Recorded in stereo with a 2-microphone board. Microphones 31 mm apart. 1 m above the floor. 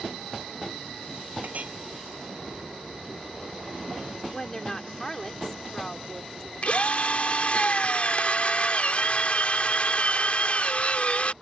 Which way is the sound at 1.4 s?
55° right (ahead or behind).